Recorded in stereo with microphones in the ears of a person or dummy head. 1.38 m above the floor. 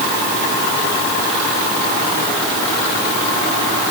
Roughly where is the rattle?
No rattle in this recording.